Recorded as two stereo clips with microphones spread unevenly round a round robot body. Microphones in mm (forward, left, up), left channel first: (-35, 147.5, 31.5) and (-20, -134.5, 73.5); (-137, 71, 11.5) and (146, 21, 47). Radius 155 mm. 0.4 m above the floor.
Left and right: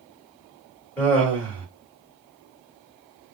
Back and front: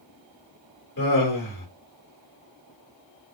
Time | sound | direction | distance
1.0 | laughter | 165° left | 1.7 m